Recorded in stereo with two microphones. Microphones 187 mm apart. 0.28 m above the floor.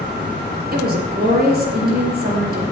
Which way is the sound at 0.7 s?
55° right (ahead or behind).